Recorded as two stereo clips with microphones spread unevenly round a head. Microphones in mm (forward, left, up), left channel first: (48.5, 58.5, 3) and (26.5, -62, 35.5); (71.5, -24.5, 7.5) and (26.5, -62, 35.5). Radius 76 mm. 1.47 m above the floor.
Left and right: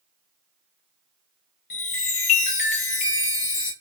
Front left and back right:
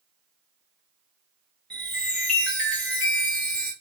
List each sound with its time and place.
1.7 s a chime: 125° left, 0.5 m